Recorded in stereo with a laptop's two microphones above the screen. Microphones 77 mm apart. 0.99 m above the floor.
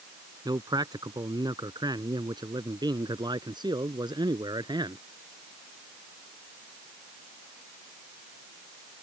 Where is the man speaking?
65° right (ahead or behind); by 5.0 s 75° right (ahead or behind).